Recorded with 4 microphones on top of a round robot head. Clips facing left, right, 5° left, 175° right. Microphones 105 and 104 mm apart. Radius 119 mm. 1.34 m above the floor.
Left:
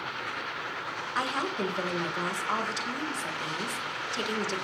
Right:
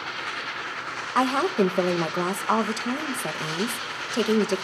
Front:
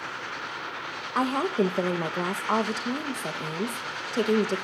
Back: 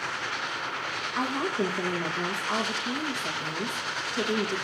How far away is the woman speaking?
About 1.1 m.